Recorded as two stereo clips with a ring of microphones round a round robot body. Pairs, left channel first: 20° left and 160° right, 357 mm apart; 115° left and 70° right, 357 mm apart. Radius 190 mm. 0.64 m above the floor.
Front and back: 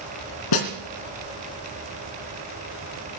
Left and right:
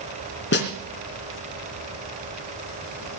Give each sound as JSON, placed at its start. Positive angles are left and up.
{"t": 0.5, "sound": "a snare drum", "azimuth_deg": 50, "distance_m": 2.5}